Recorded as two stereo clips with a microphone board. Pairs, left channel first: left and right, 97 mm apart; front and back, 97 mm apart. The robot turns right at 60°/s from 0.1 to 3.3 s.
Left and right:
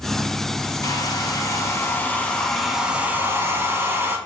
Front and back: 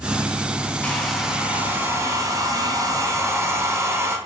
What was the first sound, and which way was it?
A hair dryer, 70° left.